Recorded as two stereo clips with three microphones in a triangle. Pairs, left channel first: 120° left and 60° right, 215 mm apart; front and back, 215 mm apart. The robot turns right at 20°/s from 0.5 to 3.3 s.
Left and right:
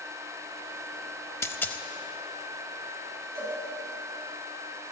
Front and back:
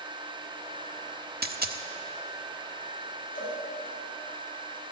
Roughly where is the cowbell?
Ahead.